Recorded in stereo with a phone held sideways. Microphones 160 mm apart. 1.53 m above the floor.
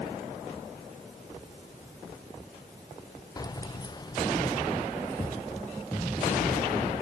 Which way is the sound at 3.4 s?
20° left (ahead or behind).